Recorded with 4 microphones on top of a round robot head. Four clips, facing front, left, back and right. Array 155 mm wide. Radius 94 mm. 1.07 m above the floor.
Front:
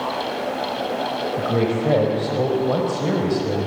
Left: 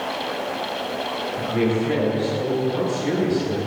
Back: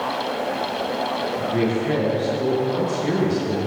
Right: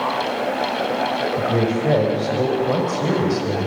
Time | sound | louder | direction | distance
1.4 | a woman speaking | left 1 dB, front 2 dB | 40° right | 5 m